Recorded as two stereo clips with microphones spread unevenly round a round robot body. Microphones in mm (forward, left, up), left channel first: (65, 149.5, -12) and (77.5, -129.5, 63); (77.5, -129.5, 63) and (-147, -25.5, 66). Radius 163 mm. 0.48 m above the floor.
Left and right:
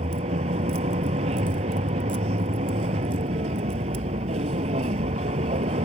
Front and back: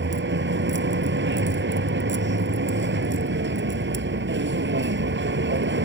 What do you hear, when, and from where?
0.0 s a vehicle: 160° right